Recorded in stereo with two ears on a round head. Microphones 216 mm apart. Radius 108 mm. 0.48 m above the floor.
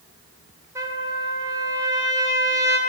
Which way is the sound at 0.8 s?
15° right (ahead or behind).